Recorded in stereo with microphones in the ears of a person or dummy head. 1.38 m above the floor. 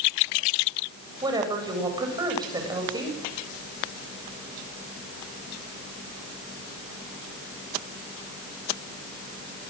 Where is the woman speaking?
25° right (ahead or behind), 8.5 m.